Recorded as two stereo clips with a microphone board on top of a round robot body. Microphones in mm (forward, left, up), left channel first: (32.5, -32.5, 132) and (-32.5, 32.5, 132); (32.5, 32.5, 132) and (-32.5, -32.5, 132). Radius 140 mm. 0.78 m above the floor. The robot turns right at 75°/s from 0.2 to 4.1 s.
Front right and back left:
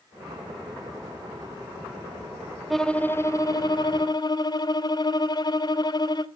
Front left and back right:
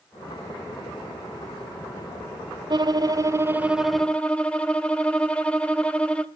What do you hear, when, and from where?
2.7 s a violin: 135° right, 1.1 m; by 6.3 s 30° right, 1.1 m